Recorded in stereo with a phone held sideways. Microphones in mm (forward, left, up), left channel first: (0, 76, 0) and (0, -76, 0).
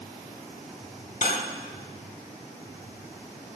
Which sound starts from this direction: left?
Cutlery clinking, at 1.2 s.